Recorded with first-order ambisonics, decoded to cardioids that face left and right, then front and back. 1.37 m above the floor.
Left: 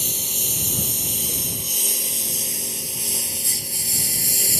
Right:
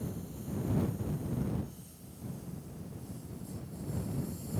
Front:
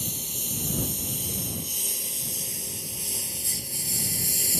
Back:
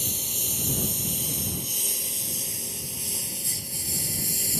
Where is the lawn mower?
100° left; by 4.6 s 80° left.